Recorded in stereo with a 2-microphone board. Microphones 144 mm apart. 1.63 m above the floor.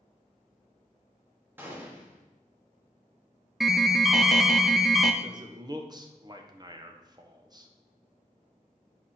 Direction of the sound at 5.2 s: 30° right (ahead or behind).